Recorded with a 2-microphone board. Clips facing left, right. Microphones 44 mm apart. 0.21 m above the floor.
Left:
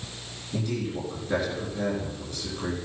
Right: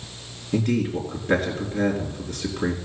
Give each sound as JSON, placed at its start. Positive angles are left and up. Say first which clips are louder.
{"t": 0.5, "sound": "a man speaking", "louder": "right 7 dB", "side_deg": -45, "distance_m": 2.5}